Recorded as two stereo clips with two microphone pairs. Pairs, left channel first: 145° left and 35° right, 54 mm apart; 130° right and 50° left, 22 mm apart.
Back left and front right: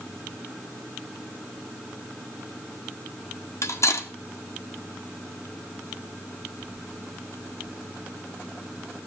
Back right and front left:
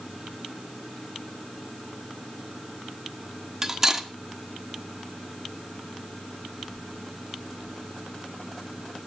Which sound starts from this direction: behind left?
Cutlery clinking, at 3.6 s.